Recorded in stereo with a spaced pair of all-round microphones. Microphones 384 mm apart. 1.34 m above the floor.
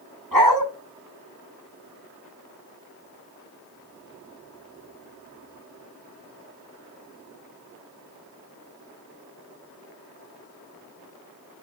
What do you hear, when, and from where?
0.3 s a dog barking: 65° right (ahead or behind), 4 m